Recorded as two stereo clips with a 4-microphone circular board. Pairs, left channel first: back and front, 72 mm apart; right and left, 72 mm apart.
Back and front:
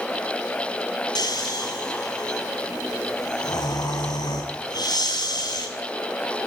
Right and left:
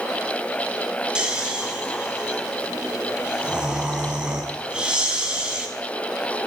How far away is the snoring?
About 6.5 m.